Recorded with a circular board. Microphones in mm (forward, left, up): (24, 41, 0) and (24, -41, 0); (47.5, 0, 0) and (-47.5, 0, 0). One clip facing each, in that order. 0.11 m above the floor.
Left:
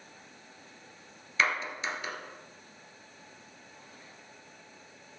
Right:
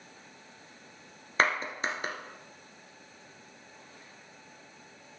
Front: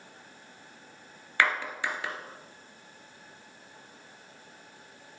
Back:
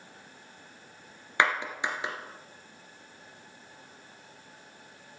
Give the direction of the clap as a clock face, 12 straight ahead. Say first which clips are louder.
Right 2 dB, back 1 dB; 4 o'clock.